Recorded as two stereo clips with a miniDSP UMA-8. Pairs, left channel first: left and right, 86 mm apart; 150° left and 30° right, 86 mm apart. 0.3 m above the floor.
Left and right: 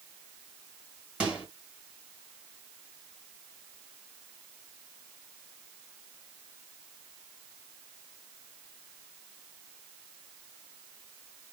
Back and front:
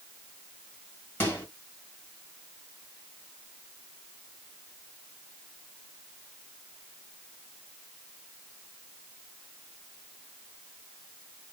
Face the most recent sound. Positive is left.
turn(degrees=-160)